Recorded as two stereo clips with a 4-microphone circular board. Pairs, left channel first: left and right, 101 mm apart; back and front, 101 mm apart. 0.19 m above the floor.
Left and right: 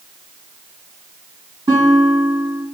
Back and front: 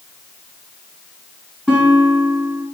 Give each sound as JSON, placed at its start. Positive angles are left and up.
{"t": 1.7, "sound": "a guitar", "azimuth_deg": -95, "distance_m": 1.9}